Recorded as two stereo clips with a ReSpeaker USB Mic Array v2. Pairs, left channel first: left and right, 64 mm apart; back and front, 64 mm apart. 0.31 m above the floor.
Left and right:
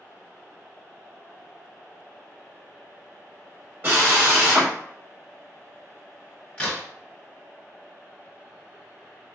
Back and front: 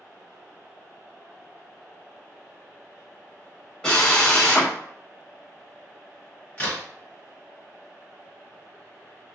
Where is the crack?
145° left, 1.4 m.